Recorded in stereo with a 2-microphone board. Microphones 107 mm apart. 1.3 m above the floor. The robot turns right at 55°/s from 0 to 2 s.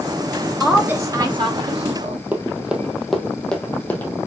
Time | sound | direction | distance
0.6 | a woman speaking | 175° right | 1.7 m
2.3 | running footsteps | 15° right (ahead or behind) | 1.7 m